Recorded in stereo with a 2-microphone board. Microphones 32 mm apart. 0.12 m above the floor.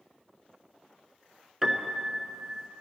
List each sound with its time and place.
1.6 s a piano: 10° right (ahead or behind), 0.8 m